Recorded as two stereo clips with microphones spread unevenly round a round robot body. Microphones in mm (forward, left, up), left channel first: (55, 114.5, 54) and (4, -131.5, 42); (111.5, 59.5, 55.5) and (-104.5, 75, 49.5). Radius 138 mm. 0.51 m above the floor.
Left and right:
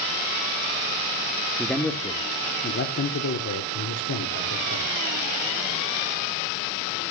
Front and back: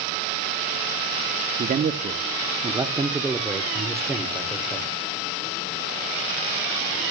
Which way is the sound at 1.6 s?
175° left.